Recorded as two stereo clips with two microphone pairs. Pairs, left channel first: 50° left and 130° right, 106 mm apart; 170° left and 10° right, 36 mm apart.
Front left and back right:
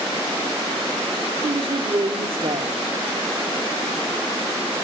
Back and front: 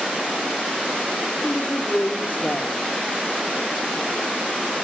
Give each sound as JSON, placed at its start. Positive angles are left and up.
{"t": 1.4, "sound": "a woman speaking", "azimuth_deg": -150, "distance_m": 1.5}